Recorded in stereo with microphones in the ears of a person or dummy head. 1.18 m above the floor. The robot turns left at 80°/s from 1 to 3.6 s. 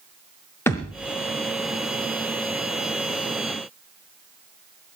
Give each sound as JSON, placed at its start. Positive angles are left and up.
{"t": 0.7, "sound": "a thud", "side_deg": 10, "distance_m": 1.1}